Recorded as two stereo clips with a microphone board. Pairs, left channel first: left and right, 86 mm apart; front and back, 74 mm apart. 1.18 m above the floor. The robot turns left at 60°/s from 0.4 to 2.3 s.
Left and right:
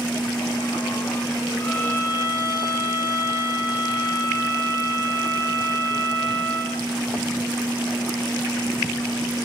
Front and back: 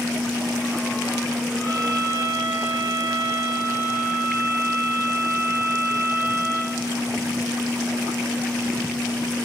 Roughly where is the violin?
Behind.